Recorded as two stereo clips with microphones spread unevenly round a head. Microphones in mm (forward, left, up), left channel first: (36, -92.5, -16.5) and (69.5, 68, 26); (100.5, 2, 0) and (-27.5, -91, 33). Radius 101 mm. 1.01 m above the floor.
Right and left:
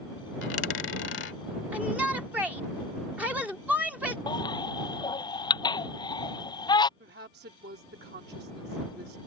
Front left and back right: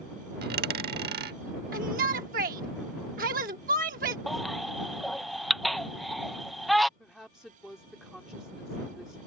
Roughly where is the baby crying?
Ahead right.